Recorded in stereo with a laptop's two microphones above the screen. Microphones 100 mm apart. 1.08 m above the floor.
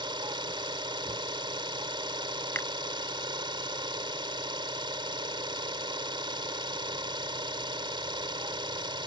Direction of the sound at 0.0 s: 55° right (ahead or behind).